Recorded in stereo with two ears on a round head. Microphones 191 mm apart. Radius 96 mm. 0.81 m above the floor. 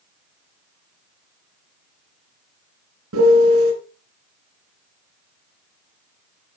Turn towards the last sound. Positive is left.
turn(degrees=-70)  # may be behind; listen again after turning